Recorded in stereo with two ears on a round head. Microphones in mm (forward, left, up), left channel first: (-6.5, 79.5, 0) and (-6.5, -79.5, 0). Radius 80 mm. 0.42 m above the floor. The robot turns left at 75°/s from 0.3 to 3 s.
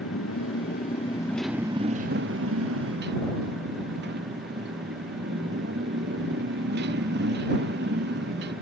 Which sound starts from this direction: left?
A motorcycle, at 0.0 s.